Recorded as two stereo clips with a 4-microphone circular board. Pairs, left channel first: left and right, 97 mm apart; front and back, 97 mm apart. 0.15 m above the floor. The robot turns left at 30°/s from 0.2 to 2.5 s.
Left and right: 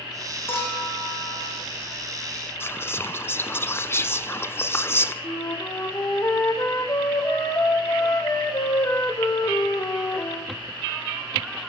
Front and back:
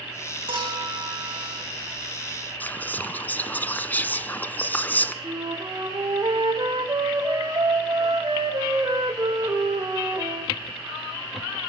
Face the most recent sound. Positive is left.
turn(degrees=135)